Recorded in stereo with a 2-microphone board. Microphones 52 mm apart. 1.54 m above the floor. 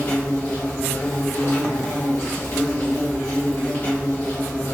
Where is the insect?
55° left (ahead or behind), 1.2 m.